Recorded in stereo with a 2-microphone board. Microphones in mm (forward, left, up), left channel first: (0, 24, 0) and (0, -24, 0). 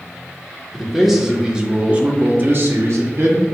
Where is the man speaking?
Centre (ahead or behind), 1.2 m; by 3.5 s 70° right (ahead or behind), 1.0 m.